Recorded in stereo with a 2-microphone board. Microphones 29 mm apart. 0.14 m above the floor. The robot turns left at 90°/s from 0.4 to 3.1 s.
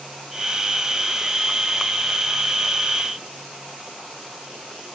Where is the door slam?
I don't hear a door slam.